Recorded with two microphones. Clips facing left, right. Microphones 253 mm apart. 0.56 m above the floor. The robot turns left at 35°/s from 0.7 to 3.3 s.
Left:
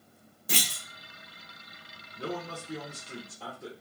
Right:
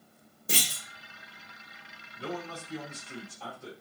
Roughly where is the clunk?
Right.